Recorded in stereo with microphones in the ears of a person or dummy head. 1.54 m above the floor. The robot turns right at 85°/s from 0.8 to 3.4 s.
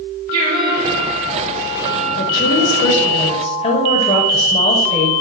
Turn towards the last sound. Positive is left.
turn(degrees=150)